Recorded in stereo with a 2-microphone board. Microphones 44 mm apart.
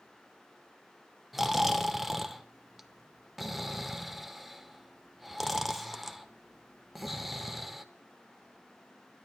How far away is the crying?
I don't hear crying.